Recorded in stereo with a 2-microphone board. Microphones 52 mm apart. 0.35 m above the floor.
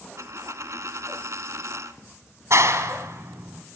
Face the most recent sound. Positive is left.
turn(degrees=-65)  # may be behind; listen again after turning